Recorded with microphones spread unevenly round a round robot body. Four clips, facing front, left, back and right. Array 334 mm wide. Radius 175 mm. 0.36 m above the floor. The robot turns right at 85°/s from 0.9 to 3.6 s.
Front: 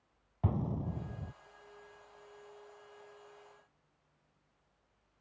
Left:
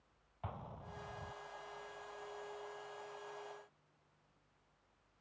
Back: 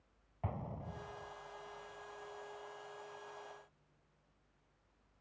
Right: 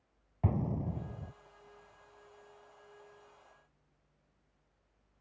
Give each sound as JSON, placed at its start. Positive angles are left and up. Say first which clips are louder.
{"t": 0.4, "sound": "an explosion", "louder": "right 14 dB, front 8 dB", "azimuth_deg": -55}